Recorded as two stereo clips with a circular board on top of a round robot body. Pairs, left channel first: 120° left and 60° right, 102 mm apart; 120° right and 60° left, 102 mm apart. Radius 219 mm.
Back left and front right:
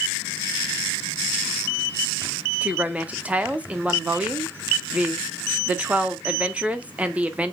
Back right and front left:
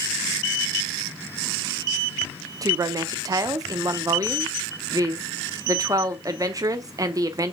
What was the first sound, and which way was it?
A woman speaking, 15° left.